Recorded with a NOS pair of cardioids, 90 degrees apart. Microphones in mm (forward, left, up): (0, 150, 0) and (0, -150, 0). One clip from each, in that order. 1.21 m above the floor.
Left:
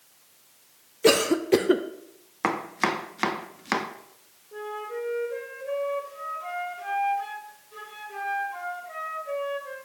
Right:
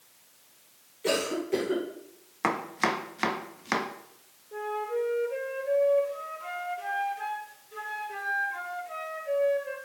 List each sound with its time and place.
1.0 s a cough: 55° left, 0.8 m
2.4 s chopping: 10° left, 0.7 m
4.5 s a flute: 20° right, 2.5 m